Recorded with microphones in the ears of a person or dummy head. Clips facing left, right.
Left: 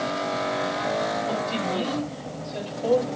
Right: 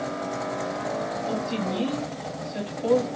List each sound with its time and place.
1.3 s a woman speaking: 15° right (ahead or behind), 6.5 m; by 3.1 s 10° right (ahead or behind), 6.5 m